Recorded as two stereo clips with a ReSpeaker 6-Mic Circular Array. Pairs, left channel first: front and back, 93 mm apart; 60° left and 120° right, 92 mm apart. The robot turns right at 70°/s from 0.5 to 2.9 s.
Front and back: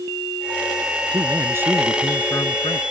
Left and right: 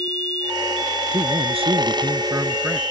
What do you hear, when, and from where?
1.1 s a man speaking: 145° right; by 2.8 s 30° right